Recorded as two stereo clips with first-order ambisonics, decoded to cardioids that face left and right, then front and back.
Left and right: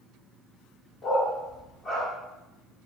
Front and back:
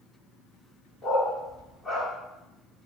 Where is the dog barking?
45° left, 0.9 m.